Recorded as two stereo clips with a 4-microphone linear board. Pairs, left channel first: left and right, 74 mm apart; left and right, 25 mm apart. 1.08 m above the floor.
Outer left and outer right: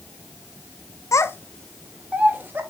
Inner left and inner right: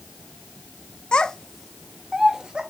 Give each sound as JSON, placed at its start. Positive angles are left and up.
{"t": 1.1, "sound": "a child speaking", "side_deg": 45, "distance_m": 0.5}